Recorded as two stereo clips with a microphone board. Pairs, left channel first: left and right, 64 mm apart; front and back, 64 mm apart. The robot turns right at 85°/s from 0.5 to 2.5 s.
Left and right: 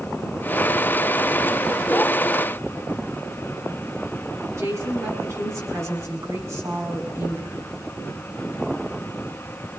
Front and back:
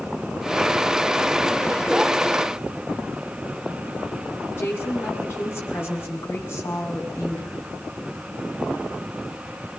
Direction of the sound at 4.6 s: 50° right.